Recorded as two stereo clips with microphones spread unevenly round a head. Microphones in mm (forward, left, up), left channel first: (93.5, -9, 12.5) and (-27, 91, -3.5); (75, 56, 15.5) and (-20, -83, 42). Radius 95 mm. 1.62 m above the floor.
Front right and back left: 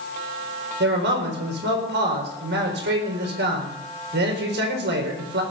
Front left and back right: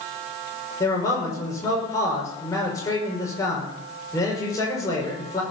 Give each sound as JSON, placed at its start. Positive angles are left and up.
{"t": 0.8, "sound": "a man speaking", "azimuth_deg": 130, "distance_m": 5.0}